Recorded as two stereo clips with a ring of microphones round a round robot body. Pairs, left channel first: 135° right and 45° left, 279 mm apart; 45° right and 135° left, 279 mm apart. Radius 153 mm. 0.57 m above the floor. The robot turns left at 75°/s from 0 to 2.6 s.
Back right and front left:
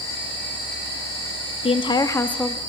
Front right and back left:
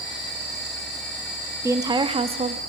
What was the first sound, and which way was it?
A woman speaking, 160° right.